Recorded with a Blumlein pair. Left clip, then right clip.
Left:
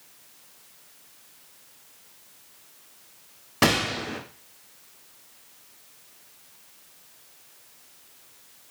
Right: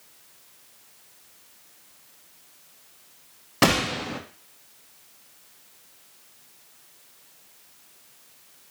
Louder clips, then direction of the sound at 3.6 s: Right 1 dB; 10° right.